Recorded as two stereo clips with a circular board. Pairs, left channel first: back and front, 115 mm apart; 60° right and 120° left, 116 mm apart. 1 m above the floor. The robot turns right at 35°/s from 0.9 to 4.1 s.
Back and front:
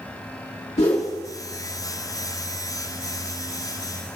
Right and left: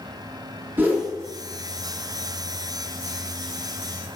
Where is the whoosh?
165° right, 1.5 m; by 1.1 s 155° right, 1.5 m.